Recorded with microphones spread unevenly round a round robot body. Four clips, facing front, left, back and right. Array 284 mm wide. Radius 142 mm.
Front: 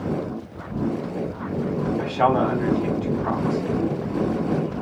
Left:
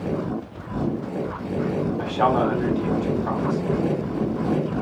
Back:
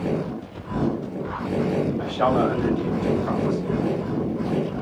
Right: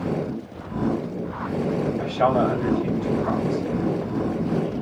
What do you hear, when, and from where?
2.0 s a man speaking: 40° left, 2 m